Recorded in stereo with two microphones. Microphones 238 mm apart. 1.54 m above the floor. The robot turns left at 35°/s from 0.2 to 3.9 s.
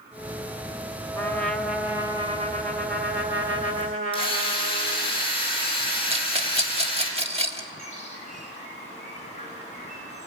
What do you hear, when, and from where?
1.1 s a trumpet: 15° left, 1.9 m; by 5.1 s 80° right, 1.9 m
4.1 s a drill: 20° left (ahead or behind), 5.5 m
6.1 s a rattle: 25° right (ahead or behind), 1.5 m
7.8 s a bird: 30° left (ahead or behind), 4.5 m